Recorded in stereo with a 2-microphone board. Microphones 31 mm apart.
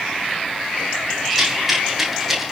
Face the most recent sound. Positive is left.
turn(degrees=-5)  # may be behind; listen again after turning